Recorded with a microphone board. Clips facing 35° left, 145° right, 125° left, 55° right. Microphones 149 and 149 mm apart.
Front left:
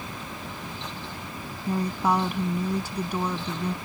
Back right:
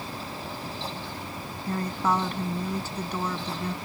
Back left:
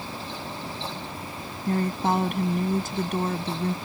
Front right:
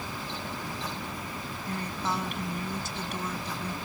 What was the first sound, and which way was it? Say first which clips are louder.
A woman speaking: front left 2 dB, back left 9 dB; 110° left.